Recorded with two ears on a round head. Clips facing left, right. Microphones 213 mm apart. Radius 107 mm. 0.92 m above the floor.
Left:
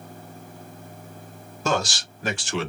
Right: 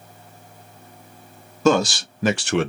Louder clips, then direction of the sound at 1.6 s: Right 8 dB; 70° right (ahead or behind).